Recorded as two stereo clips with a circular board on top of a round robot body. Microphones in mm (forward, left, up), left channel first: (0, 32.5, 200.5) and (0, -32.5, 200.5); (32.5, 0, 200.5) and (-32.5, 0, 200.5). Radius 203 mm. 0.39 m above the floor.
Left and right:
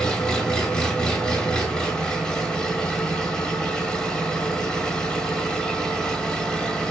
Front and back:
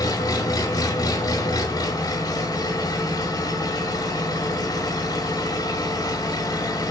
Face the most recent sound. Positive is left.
turn(degrees=10)